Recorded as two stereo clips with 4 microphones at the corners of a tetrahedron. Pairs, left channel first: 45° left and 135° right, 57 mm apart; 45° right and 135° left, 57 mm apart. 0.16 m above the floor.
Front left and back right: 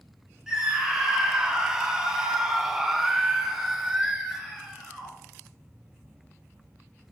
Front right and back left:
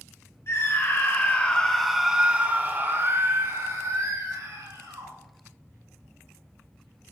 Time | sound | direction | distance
0.5 | a scream | 55° right | 2 m